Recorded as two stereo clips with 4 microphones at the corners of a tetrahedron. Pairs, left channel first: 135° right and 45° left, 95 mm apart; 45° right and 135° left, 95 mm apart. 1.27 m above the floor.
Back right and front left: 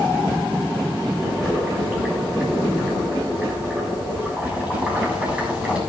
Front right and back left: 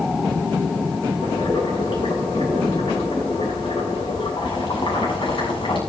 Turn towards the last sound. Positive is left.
turn(degrees=-30)